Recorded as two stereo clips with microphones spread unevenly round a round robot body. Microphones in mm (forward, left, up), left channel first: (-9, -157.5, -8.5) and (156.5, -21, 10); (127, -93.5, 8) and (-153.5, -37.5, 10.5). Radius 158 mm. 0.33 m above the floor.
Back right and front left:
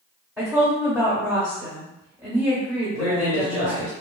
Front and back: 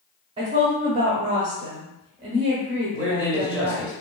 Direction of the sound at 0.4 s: 120° left.